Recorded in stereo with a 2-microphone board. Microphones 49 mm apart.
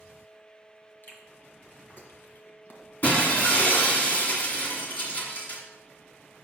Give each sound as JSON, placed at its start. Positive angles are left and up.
{"t": 1.0, "sound": "chewing", "side_deg": 50, "distance_m": 1.6}
{"t": 3.0, "sound": "breaking glass", "side_deg": 35, "distance_m": 1.9}